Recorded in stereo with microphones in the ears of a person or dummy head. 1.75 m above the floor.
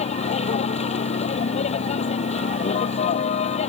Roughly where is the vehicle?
Left.